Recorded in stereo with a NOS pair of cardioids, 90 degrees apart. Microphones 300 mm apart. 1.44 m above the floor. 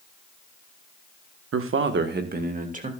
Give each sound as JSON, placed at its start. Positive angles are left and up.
{"t": 1.5, "sound": "a man speaking", "azimuth_deg": -50, "distance_m": 1.3}